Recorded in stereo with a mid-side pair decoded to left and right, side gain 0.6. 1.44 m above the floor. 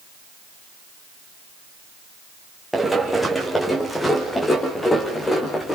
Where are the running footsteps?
Straight ahead, 5 m; by 5.8 s 25° left, 5.5 m.